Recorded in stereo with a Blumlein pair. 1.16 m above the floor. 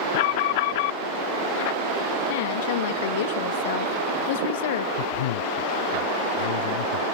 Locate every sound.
0.1 s an alarm: 50° left
2.3 s a woman speaking: 55° left
5.0 s a man speaking: 55° left